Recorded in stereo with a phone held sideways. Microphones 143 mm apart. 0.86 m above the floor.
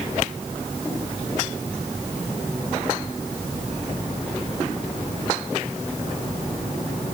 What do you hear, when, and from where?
Only background noise.